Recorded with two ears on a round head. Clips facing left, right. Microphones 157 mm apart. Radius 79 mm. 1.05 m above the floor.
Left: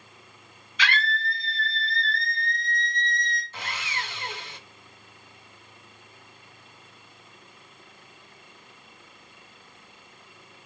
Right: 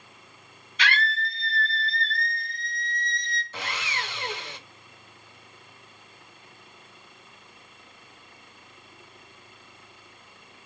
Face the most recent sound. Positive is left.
turn(degrees=-60)  # may be behind; listen again after turning